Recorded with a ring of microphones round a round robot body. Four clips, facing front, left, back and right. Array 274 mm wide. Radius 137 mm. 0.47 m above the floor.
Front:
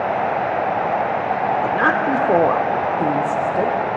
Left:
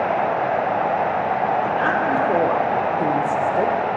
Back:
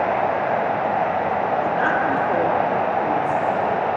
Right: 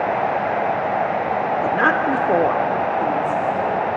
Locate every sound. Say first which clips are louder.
1.6 s a woman speaking: right 2 dB, front 2 dB; 60° right, 1.1 m; by 3.8 s 45° left, 1.3 m